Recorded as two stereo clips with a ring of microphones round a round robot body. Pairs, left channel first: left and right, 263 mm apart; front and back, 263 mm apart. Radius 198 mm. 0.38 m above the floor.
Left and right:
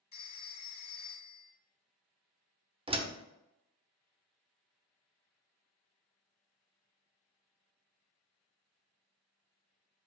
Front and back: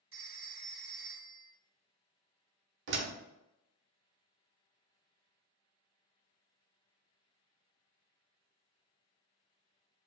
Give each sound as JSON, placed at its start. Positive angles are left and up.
{"t": 0.1, "sound": "a phone ringing", "azimuth_deg": 145, "distance_m": 1.9}
{"t": 2.9, "sound": "a door slam", "azimuth_deg": -155, "distance_m": 0.9}